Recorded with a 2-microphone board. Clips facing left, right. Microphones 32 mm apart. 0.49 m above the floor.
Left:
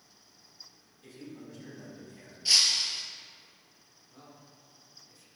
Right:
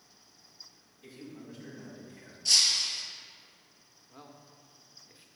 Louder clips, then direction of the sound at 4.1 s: Right 2 dB; 35° right (ahead or behind).